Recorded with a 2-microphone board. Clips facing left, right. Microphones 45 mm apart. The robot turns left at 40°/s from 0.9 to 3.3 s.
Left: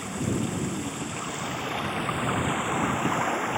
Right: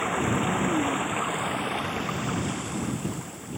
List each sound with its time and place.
0.0 s running water: 145° right; by 3.6 s 120° left